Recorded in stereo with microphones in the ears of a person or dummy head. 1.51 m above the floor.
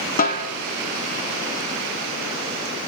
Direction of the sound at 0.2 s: 40° left (ahead or behind).